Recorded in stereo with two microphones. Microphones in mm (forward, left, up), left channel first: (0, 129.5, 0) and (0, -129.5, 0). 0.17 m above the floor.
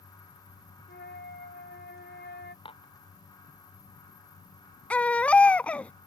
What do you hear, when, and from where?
0.9 s a flute: 40° left (ahead or behind)
2.6 s dishes clattering: 20° left (ahead or behind)
4.9 s a baby crying: 5° left (ahead or behind)